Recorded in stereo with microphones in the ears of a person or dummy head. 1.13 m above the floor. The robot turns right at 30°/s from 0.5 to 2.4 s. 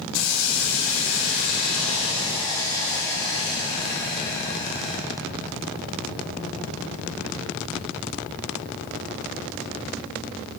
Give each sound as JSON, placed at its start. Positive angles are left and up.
{"t": 0.1, "sound": "a hiss", "azimuth_deg": 105, "distance_m": 3.5}